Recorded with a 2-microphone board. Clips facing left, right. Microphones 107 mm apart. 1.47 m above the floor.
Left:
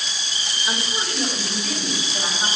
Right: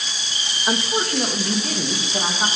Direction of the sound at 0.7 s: 50° right (ahead or behind).